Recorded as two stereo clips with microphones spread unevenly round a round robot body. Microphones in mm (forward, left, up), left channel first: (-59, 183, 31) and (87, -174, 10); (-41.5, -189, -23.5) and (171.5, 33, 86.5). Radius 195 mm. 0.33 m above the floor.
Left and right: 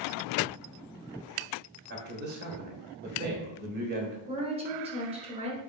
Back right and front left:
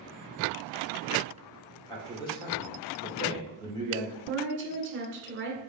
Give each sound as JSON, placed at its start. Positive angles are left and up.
{"t": 1.9, "sound": "a man speaking", "azimuth_deg": -105, "distance_m": 1.2}
{"t": 4.3, "sound": "a woman speaking", "azimuth_deg": -10, "distance_m": 1.2}